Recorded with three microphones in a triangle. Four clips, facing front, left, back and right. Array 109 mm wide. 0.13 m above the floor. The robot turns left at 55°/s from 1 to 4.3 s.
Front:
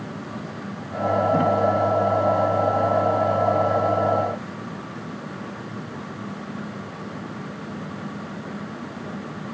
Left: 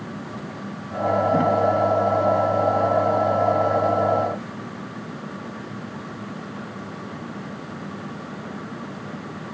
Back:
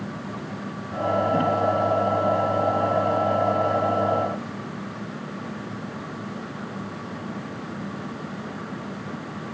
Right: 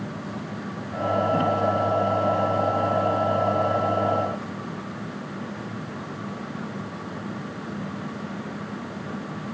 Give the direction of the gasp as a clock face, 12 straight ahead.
No gasp in this recording.